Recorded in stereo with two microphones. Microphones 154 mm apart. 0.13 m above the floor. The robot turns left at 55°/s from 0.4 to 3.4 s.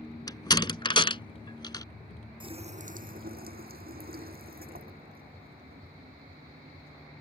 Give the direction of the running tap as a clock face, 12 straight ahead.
1 o'clock.